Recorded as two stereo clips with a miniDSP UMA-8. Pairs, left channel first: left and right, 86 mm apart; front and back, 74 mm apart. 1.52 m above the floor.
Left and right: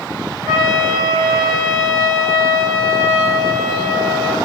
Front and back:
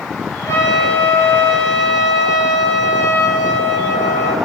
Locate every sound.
0.5 s a trumpet: 45° right, 1.1 m